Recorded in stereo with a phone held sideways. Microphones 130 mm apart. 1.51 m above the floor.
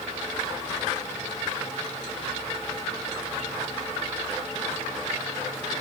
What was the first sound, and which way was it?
Only background noise.